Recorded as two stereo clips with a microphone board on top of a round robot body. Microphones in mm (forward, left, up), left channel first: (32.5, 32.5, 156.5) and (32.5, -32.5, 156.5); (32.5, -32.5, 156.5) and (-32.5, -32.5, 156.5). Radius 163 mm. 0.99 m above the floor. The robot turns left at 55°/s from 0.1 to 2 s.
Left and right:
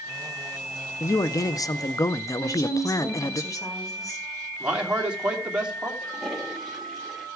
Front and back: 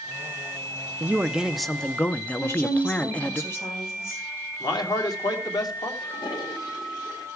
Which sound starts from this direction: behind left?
A man speaking, at 1.0 s.